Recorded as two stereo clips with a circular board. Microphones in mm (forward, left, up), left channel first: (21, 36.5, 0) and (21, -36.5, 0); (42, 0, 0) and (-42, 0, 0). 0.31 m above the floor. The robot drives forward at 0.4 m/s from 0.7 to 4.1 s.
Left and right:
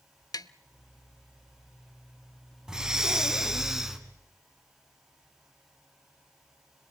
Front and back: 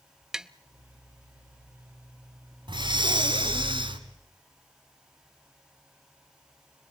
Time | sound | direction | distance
0.3 | tapping | 100° left | 0.5 m
2.7 | breathing | 170° right | 1.3 m